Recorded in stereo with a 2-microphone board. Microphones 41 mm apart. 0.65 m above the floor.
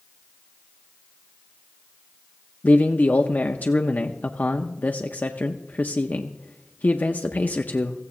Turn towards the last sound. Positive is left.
turn(degrees=45)  # may be behind; listen again after turning